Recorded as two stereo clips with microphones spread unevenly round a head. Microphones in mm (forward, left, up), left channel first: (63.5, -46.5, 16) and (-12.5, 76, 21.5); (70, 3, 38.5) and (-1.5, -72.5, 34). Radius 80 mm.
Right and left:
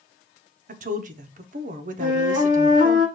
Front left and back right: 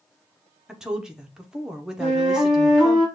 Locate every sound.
0.7 s a woman speaking: 145° left, 0.7 m
2.0 s a flute: 95° left, 2.5 m